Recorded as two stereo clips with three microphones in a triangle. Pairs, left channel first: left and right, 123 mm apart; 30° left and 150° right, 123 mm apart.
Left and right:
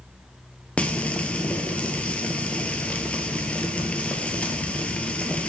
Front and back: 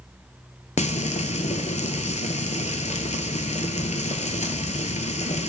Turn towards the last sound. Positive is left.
turn(degrees=10)